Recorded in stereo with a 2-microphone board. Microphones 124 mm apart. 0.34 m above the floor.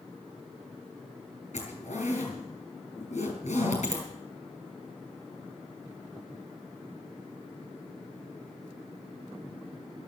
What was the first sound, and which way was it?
A zipper, 65° left (ahead or behind).